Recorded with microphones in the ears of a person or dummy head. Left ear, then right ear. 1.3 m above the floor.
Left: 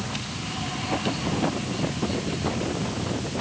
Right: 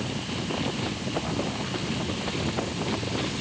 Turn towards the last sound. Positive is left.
No sound to turn to.